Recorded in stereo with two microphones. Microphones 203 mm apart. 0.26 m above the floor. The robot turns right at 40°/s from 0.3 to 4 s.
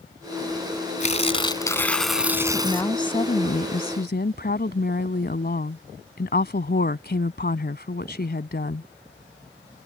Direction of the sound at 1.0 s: 135° left.